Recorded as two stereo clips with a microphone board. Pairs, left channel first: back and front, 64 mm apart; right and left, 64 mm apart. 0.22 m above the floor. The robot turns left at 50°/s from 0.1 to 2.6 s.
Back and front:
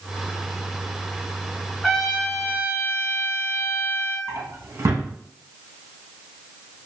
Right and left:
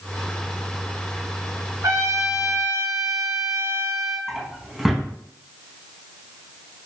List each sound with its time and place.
1.8 s a trumpet: 90° left, 1.0 m; by 4.2 s 55° left, 1.0 m
4.3 s a drawer: 5° left, 0.6 m